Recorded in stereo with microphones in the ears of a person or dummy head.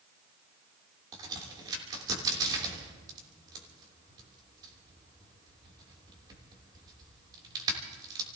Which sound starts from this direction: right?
A crack, at 1.1 s.